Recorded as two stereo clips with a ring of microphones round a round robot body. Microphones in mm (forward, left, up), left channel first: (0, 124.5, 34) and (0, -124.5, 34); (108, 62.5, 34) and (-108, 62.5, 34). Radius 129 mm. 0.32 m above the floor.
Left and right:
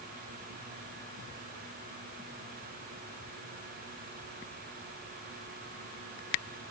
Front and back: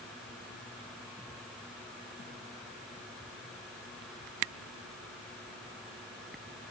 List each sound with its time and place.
Only background noise.